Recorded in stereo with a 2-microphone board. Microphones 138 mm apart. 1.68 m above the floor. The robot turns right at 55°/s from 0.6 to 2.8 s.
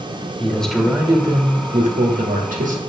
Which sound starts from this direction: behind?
A man speaking, at 0.4 s.